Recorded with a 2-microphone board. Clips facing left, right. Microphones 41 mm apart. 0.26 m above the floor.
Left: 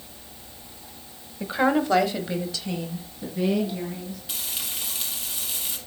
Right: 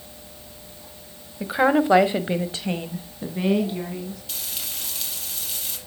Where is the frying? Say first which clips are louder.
Left 1 dB; 10° left (ahead or behind), 4 m.